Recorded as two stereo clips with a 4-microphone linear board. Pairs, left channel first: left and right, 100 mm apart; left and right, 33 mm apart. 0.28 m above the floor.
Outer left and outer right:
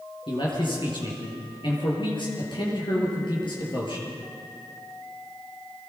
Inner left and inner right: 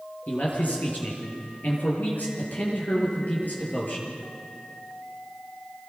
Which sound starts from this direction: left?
A man speaking, at 0.3 s.